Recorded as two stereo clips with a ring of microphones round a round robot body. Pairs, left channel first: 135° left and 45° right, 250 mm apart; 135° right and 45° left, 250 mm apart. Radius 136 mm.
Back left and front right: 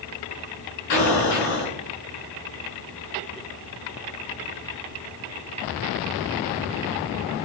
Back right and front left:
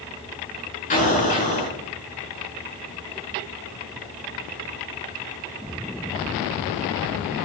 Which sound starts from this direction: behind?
An explosion, at 0.9 s.